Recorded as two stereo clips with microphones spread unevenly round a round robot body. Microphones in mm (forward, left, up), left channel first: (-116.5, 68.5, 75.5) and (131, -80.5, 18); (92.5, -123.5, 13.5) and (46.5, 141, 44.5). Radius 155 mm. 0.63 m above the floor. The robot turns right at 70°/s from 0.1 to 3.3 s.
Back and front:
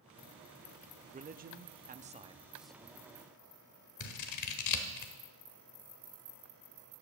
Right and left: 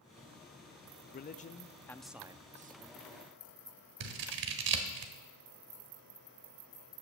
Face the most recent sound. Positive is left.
turn(degrees=120)